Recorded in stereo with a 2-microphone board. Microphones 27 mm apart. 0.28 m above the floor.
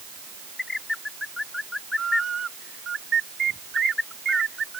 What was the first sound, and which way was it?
Only background noise.